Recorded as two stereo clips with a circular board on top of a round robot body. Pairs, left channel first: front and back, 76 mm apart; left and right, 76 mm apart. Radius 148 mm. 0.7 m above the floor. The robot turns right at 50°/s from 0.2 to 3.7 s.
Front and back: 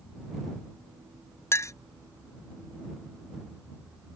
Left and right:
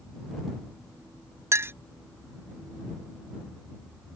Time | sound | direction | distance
1.5 | a clink | 45° right | ?